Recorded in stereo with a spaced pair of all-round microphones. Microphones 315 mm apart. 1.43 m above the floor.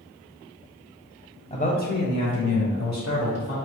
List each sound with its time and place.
1.5 s a man speaking: 20° left (ahead or behind), 0.8 m; by 3.5 s 50° left (ahead or behind), 1.8 m